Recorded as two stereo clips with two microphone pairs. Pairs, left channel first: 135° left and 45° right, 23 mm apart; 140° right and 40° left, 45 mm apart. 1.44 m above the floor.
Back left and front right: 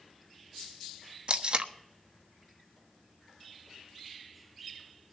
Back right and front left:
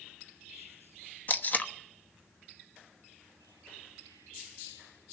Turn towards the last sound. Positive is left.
turn(degrees=-85)